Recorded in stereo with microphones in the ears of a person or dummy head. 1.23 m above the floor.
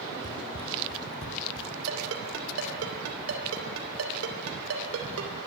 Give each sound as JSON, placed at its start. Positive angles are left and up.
{"t": 0.2, "sound": "running footsteps", "side_deg": 15, "distance_m": 1.9}
{"t": 1.9, "sound": "a ringtone", "side_deg": -85, "distance_m": 3.5}